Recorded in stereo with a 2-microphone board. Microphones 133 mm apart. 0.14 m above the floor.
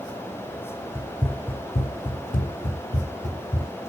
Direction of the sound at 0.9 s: 20° left (ahead or behind).